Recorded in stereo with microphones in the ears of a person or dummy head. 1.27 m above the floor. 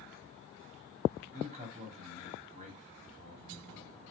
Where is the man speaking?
40° right (ahead or behind), 3 m.